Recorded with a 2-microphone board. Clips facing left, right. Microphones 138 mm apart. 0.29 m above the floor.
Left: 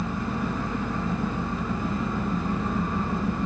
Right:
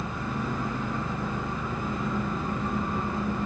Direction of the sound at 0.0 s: 30° left (ahead or behind).